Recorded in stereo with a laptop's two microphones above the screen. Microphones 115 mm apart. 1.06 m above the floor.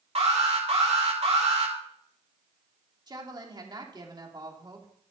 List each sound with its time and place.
0.1 s an alarm: 65° right (ahead or behind), 4 m
3.1 s a woman speaking: 40° right (ahead or behind), 2.5 m